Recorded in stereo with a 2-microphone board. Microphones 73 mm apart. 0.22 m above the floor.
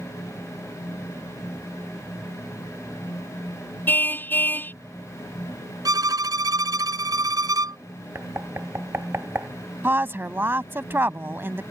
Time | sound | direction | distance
3.9 | a car horn | 25° left (ahead or behind) | ?
5.8 | a violin | 60° right (ahead or behind) | ?
8.2 | knocking | 35° right (ahead or behind) | ?
9.8 | a woman speaking | 30° right (ahead or behind) | ?